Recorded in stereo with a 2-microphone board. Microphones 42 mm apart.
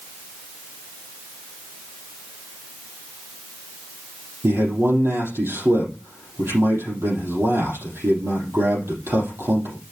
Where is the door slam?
No door slam in this recording.